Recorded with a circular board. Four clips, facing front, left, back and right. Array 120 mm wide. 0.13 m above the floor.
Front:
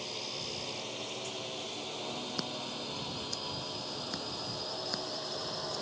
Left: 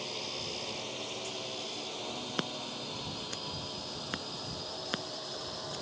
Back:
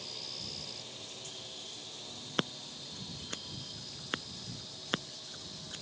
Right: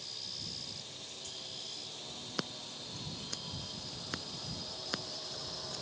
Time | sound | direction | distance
0.0 | a drone | 55° left | ?
2.4 | scissors | 165° left | ?